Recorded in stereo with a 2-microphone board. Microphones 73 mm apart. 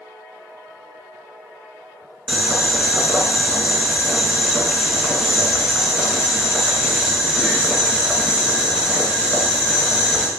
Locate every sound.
2.3 s boiling: 15° right (ahead or behind), 0.9 m